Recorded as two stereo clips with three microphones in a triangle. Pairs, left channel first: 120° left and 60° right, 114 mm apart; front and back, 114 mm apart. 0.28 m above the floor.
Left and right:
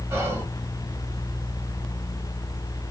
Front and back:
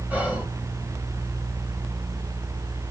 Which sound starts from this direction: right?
Whispering, at 0.1 s.